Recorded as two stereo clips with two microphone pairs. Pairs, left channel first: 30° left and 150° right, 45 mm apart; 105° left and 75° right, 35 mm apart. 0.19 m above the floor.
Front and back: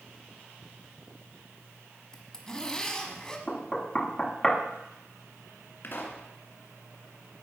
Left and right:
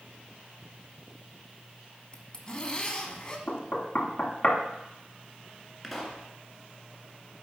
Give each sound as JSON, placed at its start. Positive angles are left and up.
{"t": 2.1, "sound": "a zipper", "azimuth_deg": 85, "distance_m": 1.0}
{"t": 3.5, "sound": "knocking", "azimuth_deg": 100, "distance_m": 1.0}
{"t": 5.8, "sound": "a pop", "azimuth_deg": 10, "distance_m": 1.6}